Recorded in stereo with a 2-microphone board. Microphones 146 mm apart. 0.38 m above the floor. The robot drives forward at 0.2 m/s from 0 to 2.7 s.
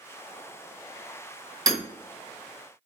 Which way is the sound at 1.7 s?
30° right (ahead or behind).